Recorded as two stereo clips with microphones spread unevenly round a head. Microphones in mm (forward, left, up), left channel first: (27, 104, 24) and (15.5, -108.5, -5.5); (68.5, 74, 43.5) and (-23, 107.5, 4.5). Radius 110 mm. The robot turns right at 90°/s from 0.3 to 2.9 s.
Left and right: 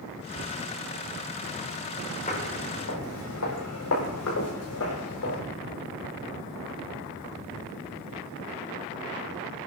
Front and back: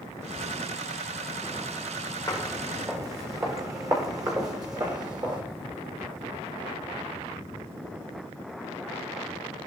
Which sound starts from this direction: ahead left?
Footsteps, at 2.3 s.